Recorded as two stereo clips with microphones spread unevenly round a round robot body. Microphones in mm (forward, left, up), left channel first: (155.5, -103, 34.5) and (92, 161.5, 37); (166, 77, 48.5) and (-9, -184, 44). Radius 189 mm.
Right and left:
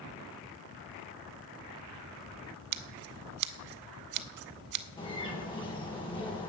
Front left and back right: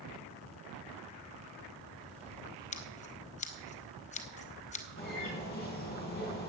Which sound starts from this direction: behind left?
Scissors, at 2.7 s.